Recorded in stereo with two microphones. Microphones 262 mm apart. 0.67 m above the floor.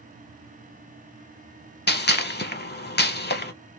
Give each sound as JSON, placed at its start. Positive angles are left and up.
{"t": 1.9, "sound": "a gunshot", "side_deg": 40, "distance_m": 0.7}